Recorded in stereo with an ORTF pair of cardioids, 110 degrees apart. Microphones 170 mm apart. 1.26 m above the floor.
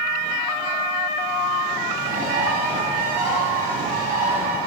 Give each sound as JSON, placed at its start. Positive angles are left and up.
{"t": 2.0, "sound": "a bird", "azimuth_deg": -65, "distance_m": 6.5}